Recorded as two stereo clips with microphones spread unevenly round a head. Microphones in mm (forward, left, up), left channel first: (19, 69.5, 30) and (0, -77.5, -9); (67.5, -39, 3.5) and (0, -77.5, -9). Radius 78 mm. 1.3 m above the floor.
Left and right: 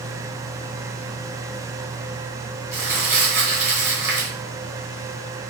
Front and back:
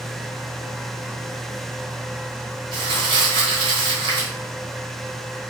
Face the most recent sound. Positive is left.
turn(degrees=-170)